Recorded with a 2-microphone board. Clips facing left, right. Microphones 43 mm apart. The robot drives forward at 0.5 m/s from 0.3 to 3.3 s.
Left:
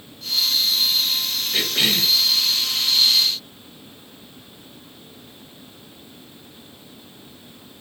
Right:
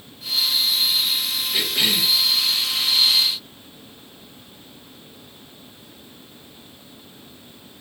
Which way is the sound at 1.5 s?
15° left (ahead or behind).